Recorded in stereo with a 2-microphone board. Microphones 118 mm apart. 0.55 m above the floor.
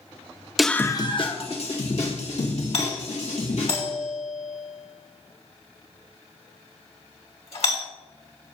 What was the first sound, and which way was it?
A scream, centre (ahead or behind).